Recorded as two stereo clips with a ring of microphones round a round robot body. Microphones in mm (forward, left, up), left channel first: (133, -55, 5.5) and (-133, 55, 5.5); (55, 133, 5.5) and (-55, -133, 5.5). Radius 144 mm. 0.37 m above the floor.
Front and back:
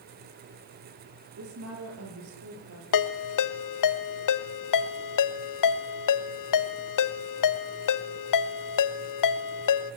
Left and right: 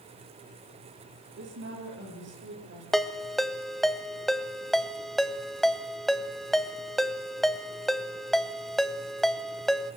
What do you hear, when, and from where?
1.4 s a woman speaking: 160° right, 8.5 m; by 2.8 s 165° right, 8 m
2.9 s a ringtone: 20° right, 1.1 m